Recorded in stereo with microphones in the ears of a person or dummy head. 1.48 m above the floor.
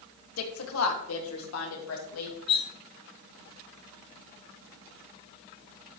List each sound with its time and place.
0.4 s a woman speaking: 85° left, 1.7 m
2.5 s cutlery clinking: 30° left (ahead or behind), 0.8 m